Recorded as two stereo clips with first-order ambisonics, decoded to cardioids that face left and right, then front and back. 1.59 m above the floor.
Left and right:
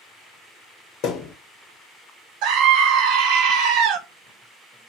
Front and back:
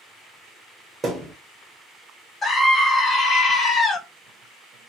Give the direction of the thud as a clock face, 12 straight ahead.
9 o'clock.